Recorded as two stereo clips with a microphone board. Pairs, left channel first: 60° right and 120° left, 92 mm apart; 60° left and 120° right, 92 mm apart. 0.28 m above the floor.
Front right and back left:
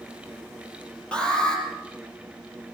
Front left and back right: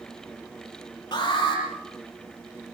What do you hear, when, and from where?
1.1 s an alarm: 15° left, 7 m